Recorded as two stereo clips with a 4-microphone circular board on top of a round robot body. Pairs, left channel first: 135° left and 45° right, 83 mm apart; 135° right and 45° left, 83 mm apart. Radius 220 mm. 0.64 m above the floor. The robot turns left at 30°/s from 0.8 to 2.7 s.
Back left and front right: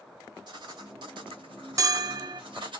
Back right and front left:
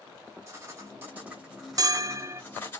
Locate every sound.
0.5 s writing: 15° right, 2.5 m; by 2.8 s 70° right, 2.5 m
1.8 s a bell: straight ahead, 0.7 m; by 2.4 s 15° right, 0.7 m